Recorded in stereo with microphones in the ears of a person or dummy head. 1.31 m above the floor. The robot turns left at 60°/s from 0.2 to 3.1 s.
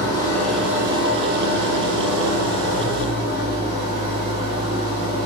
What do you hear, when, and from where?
0.0 s an engine running: 20° left, 0.7 m; by 5.3 s 155° right, 0.7 m